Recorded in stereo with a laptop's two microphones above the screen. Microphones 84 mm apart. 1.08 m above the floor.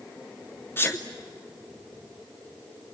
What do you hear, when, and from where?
0.8 s a sneeze: 30° left (ahead or behind), 0.8 m